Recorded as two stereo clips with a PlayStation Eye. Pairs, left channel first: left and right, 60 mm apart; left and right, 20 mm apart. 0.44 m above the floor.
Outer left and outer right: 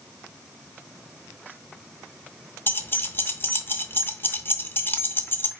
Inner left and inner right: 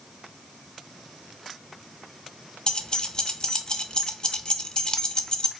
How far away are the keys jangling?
About 0.5 m.